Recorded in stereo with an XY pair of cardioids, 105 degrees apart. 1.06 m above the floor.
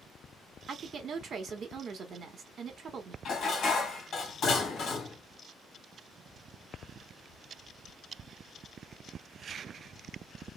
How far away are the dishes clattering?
About 1.3 m.